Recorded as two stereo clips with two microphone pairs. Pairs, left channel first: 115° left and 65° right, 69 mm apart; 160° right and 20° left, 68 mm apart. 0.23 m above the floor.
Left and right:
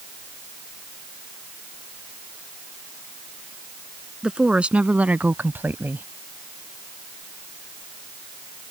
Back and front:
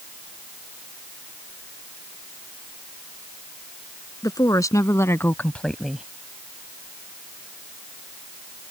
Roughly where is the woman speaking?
Behind right.